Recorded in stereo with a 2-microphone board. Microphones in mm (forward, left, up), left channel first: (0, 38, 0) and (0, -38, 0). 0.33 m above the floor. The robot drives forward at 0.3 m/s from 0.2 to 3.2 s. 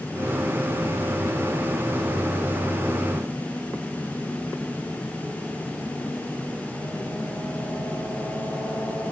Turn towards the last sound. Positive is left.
No sound to turn to.